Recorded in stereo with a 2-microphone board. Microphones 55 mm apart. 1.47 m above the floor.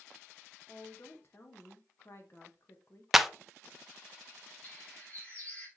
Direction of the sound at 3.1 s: 5° right (ahead or behind).